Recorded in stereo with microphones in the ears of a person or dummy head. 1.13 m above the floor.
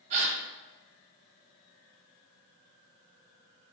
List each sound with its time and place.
0.1 s a gasp: 40° right (ahead or behind), 0.6 m